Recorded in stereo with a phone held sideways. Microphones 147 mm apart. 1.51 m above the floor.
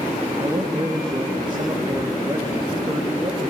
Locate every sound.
0.4 s a man speaking: 30° right (ahead or behind), 3.5 m